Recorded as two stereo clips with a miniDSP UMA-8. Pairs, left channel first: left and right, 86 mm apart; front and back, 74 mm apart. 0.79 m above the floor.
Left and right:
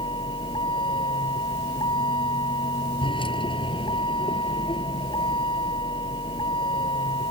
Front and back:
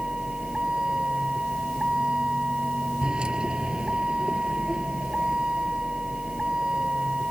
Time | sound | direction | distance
0.0 | a vehicle | 105° left | ?